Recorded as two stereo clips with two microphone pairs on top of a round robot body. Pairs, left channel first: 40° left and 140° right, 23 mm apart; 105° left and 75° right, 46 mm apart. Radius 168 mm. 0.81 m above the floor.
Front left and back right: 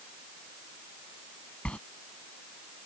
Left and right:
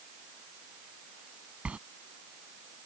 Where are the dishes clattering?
I don't hear dishes clattering.